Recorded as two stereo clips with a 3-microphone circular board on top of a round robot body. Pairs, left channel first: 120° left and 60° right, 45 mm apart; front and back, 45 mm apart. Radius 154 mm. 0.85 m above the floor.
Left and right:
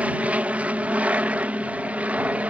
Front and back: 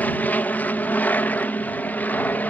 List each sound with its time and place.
0.0 s an aircraft: 25° right